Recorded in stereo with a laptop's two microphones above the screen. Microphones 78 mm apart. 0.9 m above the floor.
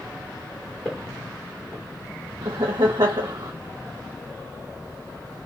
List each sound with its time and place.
0.8 s footsteps: 5° left (ahead or behind), 2.0 m
2.4 s laughter: 70° right (ahead or behind), 0.6 m